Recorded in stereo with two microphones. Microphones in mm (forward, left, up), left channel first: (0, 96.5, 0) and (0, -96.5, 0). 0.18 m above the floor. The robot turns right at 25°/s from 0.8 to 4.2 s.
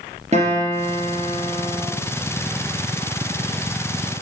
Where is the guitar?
35° right (ahead or behind), 3 m; by 1.8 s 10° right (ahead or behind), 3 m.